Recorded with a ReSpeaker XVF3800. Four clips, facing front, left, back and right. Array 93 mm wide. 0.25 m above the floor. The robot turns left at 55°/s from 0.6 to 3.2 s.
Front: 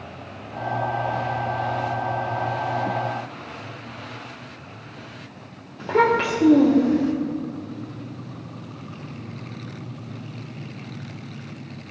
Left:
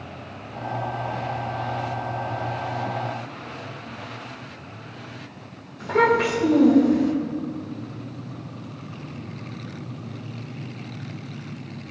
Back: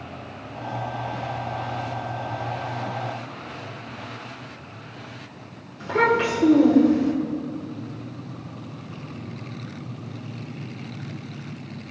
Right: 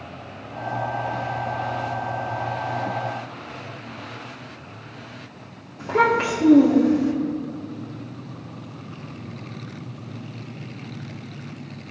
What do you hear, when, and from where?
5.8 s a child speaking: 20° right, 4 m